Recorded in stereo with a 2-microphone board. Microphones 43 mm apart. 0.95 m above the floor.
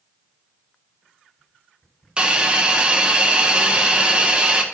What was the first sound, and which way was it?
A hiss, 20° right (ahead or behind).